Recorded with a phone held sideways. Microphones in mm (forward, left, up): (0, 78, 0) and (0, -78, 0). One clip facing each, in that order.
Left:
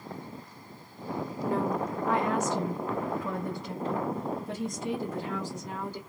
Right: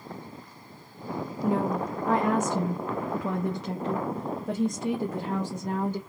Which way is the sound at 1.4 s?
15° right (ahead or behind).